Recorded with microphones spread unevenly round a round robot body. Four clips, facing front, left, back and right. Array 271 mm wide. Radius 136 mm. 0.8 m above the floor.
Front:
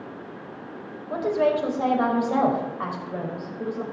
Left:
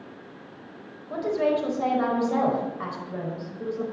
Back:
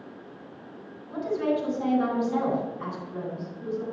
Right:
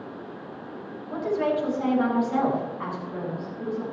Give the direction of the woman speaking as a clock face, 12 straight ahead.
11 o'clock.